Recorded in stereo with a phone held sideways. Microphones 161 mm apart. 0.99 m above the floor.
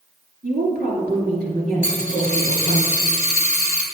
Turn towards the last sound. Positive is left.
turn(degrees=-55)  # may be behind; listen again after turning